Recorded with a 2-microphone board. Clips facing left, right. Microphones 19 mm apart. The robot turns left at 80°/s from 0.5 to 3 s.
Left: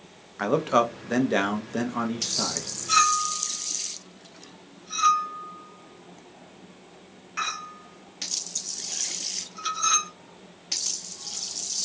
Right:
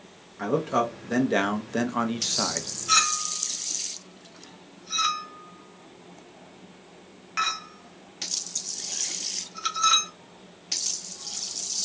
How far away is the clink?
About 1.0 m.